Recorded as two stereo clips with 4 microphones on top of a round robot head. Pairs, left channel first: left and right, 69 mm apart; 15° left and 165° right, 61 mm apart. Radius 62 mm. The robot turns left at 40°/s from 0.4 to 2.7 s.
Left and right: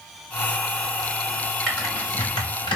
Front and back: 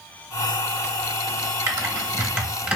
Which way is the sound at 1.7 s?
170° left.